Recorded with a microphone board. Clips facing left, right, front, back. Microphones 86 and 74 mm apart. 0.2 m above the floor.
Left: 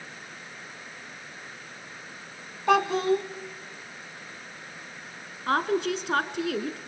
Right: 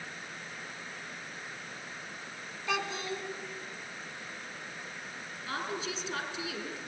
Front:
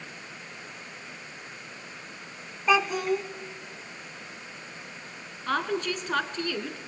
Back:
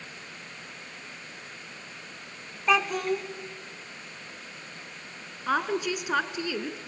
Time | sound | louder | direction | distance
2.7 | a child speaking | left 13 dB, front 1 dB | 90° left | 1.4 m
5.5 | a woman speaking | left 12 dB, back 1 dB | 100° left | 2.0 m